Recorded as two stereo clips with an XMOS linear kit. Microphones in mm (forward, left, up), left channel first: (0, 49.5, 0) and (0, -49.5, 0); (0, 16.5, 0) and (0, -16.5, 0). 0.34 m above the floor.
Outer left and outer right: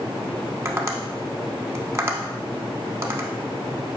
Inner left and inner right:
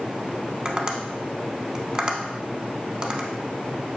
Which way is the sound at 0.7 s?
30° right (ahead or behind).